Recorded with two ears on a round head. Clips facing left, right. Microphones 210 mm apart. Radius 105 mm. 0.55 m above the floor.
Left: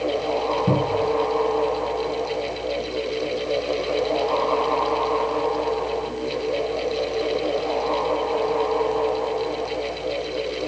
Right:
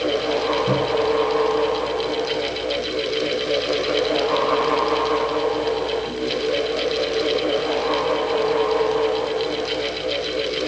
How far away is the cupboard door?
About 5 m.